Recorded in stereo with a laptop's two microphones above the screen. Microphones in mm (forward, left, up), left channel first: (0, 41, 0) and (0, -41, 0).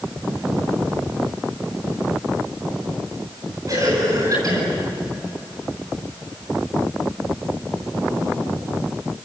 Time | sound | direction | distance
3.7 | a cough | 45° right (ahead or behind) | 9 m